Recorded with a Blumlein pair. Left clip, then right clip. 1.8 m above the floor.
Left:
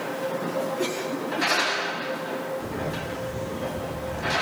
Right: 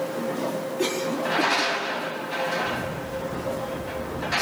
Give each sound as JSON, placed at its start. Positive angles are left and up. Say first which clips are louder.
{"t": 0.8, "sound": "a cough", "louder": "right 2 dB", "azimuth_deg": -10, "distance_m": 4.5}
{"t": 2.6, "sound": "a camera shutter", "louder": "right 3 dB", "azimuth_deg": 35, "distance_m": 6.0}